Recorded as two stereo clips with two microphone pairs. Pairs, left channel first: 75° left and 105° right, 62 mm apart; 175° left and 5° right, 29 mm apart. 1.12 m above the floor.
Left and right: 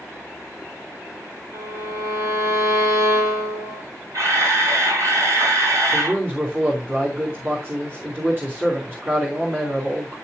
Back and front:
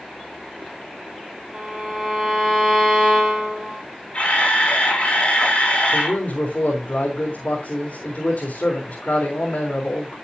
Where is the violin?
75° right, 6.5 m.